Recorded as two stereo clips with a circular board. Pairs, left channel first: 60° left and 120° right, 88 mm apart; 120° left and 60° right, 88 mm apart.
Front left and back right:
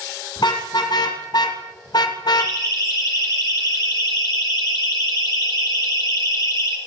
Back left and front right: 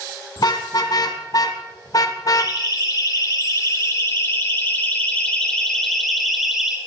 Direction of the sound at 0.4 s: 85° left.